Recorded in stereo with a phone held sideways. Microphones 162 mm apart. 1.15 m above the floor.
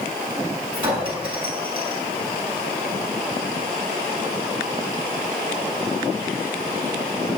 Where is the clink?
30° right (ahead or behind), 6.5 m.